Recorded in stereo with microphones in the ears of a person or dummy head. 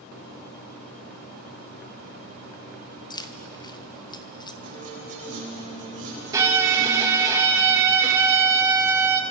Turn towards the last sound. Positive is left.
turn(degrees=-20)  # may be behind; listen again after turning